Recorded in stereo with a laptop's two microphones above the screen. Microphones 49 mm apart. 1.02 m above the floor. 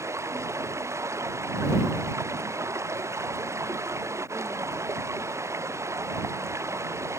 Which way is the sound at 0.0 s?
70° right (ahead or behind).